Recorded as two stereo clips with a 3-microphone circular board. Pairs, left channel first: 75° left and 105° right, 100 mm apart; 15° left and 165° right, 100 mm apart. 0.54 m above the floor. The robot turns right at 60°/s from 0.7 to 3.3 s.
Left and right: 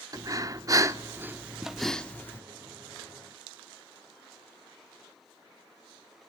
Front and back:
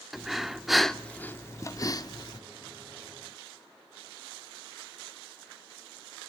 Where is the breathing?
80° right, 0.8 m; by 2.4 s 25° left, 0.8 m.